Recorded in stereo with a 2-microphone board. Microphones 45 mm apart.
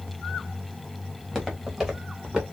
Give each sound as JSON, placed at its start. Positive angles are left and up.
{"t": 1.2, "sound": "footsteps", "side_deg": -5, "distance_m": 3.0}